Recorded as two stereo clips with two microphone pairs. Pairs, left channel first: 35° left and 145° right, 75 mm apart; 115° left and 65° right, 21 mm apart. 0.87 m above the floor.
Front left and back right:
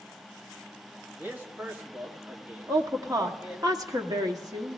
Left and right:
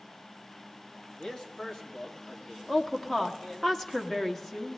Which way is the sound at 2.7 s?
175° right.